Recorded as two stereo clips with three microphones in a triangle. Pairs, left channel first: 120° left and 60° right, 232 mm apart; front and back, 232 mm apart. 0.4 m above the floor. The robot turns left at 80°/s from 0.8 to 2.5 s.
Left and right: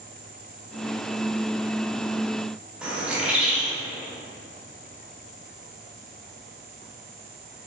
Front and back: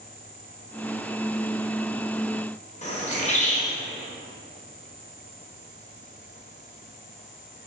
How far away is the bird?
About 0.5 m.